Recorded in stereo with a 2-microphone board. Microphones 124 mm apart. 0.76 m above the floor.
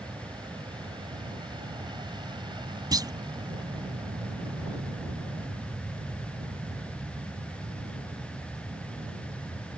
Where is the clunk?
35° right (ahead or behind).